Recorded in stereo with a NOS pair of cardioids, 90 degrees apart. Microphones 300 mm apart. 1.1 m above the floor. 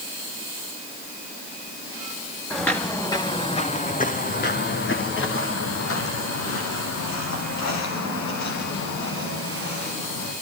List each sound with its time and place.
2.5 s footsteps: straight ahead, 4 m; by 10.3 s 70° left, 10 m